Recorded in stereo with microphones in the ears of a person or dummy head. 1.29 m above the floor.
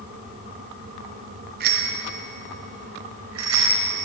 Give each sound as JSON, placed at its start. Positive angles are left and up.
{"t": 1.6, "sound": "a bicycle bell", "side_deg": -55, "distance_m": 3.0}